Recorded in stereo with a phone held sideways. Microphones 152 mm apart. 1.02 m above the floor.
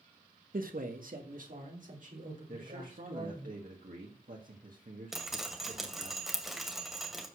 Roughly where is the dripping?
Centre.